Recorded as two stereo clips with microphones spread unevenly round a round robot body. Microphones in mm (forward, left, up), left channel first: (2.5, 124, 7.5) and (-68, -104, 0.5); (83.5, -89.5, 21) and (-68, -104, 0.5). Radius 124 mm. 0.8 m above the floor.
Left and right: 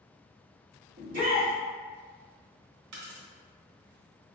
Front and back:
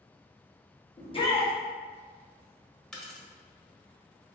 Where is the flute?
I don't hear a flute.